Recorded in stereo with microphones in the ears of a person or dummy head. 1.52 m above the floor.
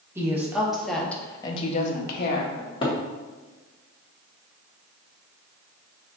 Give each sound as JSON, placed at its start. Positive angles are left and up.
{"t": 0.1, "sound": "a woman speaking", "side_deg": -15, "distance_m": 1.4}
{"t": 2.6, "sound": "a cupboard door", "side_deg": 25, "distance_m": 0.9}